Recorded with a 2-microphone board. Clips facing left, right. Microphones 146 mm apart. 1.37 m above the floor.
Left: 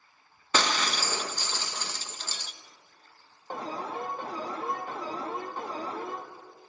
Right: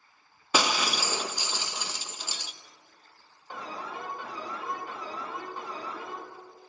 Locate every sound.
0.5 s breaking glass: 10° right (ahead or behind), 0.6 m
3.5 s an alarm: 40° left (ahead or behind), 0.9 m